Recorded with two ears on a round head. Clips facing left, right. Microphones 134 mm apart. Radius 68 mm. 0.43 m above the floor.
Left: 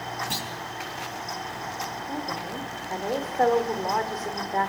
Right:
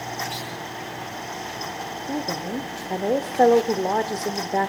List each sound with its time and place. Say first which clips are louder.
0.3 s a clunk: right 1 dB; 60° left (ahead or behind), 9 m
2.1 s a woman speaking: right 8 dB; 35° right (ahead or behind), 1.3 m